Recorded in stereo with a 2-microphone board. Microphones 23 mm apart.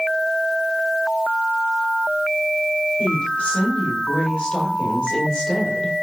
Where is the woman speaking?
40° left (ahead or behind), 3.5 m; by 6.0 s 25° left (ahead or behind), 2 m.